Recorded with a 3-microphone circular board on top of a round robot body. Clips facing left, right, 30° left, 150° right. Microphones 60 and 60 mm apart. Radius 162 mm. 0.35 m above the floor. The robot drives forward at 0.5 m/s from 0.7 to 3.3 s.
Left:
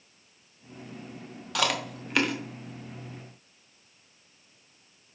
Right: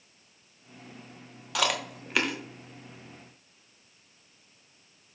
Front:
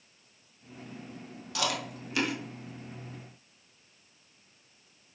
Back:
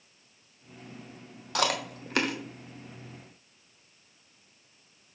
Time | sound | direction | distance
1.6 | chewing | 175° right | 1.1 m